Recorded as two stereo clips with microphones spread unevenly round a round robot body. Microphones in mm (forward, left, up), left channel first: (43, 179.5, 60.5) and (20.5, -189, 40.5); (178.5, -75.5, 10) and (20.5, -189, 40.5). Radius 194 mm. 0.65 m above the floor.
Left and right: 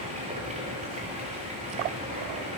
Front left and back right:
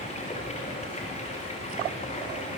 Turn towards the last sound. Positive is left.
turn(degrees=-20)